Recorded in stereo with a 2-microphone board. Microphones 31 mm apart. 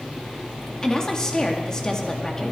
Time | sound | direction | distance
0.8 | a woman speaking | 20° left (ahead or behind) | 2 m